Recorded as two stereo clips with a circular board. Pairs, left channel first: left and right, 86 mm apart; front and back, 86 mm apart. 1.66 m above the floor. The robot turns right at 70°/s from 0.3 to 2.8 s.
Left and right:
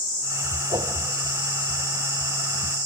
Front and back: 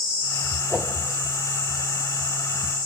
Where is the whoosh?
110° right, 2.5 m; by 0.9 s 95° right, 2.5 m.